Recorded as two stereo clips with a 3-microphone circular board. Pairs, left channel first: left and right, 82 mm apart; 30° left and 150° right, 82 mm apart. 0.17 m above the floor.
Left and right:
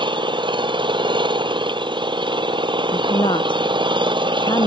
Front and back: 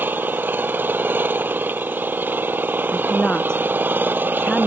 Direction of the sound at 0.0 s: 85° right.